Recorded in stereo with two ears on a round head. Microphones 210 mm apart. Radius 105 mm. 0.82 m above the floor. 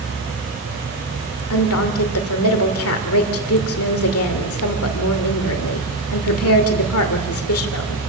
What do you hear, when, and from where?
1.5 s a woman speaking: 70° left (ahead or behind), 2.5 m